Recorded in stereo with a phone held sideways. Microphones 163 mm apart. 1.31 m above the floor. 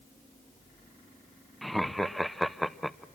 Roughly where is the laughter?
Centre.